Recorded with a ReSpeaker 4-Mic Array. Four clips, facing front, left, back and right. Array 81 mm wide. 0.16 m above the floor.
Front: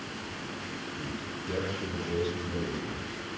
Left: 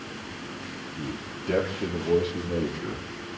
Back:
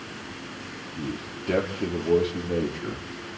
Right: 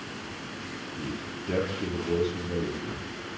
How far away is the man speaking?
About 4 m.